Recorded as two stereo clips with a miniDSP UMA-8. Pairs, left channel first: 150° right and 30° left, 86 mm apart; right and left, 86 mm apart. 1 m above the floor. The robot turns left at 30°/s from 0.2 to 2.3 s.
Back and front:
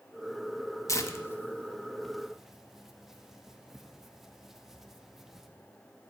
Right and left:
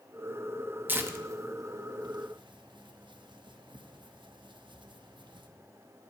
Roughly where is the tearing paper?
Behind.